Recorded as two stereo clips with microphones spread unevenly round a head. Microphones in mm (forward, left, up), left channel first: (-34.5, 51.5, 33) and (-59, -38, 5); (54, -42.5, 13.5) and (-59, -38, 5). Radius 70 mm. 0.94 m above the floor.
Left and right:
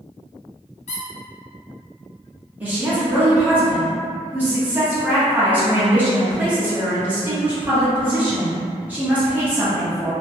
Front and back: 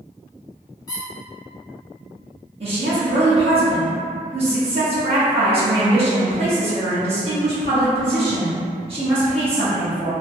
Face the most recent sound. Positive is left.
turn(degrees=-165)